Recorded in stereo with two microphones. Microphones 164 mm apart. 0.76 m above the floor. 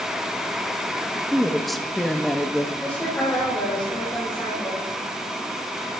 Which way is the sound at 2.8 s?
10° left (ahead or behind).